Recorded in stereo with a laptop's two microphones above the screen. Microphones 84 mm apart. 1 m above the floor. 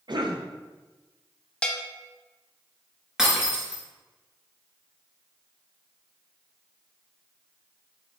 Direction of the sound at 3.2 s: 5° right (ahead or behind).